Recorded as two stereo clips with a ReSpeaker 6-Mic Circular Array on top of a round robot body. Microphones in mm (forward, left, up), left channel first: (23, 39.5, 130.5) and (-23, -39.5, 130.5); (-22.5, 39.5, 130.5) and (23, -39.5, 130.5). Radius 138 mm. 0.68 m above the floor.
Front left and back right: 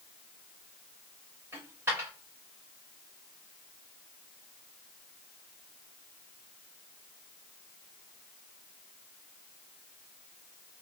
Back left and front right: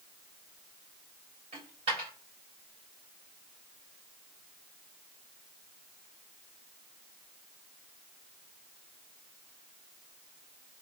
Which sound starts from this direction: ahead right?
A dropped coin, at 1.5 s.